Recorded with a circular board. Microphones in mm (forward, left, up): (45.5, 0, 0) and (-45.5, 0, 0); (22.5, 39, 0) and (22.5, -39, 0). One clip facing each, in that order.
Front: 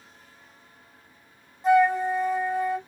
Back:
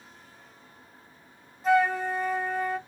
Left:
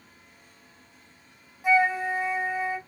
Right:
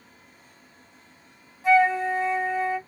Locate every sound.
1.6 s a flute: 45° left, 1.5 m